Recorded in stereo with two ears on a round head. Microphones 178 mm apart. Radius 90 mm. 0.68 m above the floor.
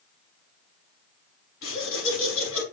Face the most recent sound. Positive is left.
turn(degrees=80)